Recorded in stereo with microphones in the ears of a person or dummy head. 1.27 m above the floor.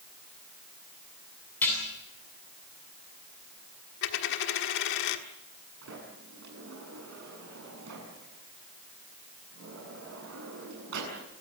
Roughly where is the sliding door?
Right.